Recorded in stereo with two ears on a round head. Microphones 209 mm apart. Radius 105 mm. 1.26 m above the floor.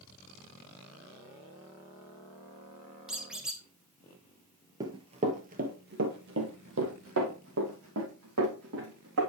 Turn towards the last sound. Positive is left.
turn(degrees=-75)  # may be behind; listen again after turning